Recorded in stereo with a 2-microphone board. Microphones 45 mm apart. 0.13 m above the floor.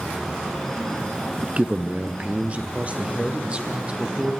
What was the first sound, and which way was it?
A man speaking, 30° right (ahead or behind).